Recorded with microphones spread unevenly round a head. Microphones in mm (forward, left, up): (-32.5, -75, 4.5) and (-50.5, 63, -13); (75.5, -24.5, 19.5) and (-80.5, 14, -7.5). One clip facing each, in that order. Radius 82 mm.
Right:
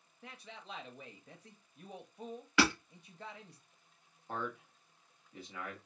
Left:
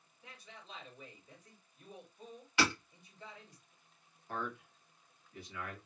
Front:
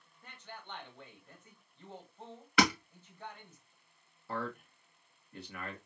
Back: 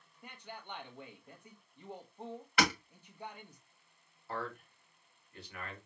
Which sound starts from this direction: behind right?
A man speaking, at 0.2 s.